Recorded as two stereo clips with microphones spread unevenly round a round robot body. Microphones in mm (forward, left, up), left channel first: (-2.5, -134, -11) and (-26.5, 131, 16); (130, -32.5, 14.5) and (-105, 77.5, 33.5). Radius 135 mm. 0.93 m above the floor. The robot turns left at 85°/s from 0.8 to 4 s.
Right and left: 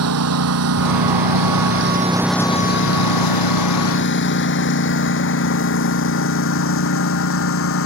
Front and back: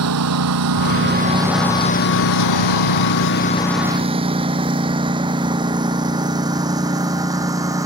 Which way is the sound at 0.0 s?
125° left.